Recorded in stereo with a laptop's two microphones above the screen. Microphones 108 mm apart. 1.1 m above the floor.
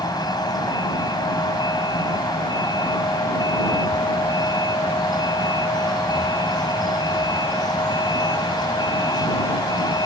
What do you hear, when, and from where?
0.0 s a vehicle: 35° left (ahead or behind)